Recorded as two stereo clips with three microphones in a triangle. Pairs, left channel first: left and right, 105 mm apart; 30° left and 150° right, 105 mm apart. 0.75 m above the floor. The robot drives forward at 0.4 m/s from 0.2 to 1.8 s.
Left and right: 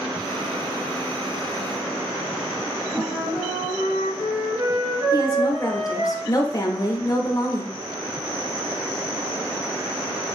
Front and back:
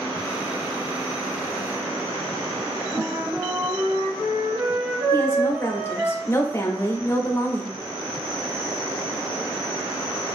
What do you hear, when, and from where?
2.9 s a flute: 105° right, 1.6 m
5.1 s a woman speaking: 75° left, 0.7 m